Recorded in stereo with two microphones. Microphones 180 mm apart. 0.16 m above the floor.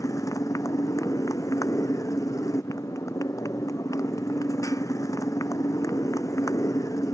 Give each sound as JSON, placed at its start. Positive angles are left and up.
{"t": 0.0, "sound": "a motorcycle", "side_deg": 20}